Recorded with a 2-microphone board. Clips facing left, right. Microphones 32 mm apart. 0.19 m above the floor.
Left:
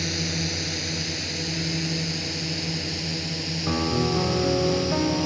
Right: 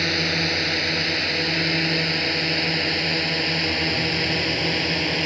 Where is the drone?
40° right (ahead or behind); by 5.3 s 50° right (ahead or behind).